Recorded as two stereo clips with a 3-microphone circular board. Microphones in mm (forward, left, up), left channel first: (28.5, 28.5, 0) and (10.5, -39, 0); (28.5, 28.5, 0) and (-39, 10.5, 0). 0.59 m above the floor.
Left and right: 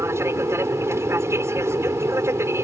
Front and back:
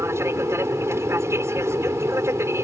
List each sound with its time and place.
0.0 s an aircraft: 135° right